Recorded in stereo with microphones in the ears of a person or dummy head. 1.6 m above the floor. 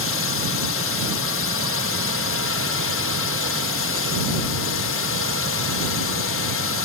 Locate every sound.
0.0 s a drone: 65° left (ahead or behind)